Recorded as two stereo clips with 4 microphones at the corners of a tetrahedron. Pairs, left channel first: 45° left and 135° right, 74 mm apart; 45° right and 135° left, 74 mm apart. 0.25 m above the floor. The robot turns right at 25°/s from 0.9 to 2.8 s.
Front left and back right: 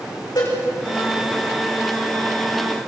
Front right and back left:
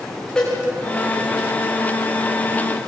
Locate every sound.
0.3 s a cowbell: 30° left, 9 m